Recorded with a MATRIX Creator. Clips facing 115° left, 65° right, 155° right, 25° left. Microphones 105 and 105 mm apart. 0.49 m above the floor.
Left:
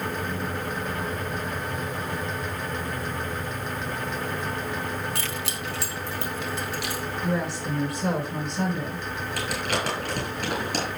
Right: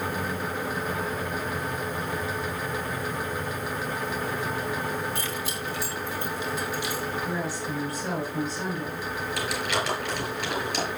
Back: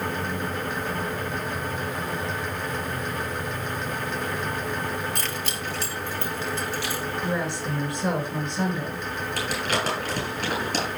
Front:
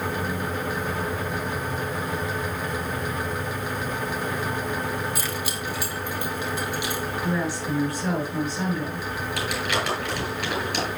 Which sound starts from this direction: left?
Keys jangling, at 5.2 s.